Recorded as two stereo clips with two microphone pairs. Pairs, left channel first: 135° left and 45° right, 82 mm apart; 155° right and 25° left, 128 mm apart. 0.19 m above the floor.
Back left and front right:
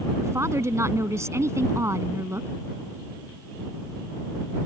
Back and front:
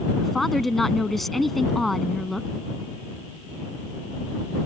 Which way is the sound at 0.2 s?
70° right.